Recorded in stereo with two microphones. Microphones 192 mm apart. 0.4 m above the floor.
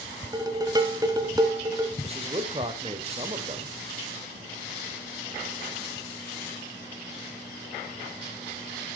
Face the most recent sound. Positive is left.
turn(degrees=-30)  # may be behind; listen again after turning